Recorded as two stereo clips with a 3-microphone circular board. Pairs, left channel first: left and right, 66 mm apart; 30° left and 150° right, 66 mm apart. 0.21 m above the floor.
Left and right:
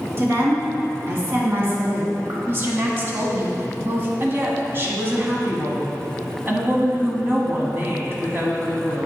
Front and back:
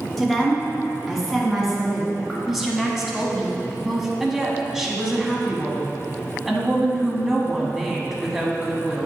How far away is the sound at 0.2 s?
About 1.8 m.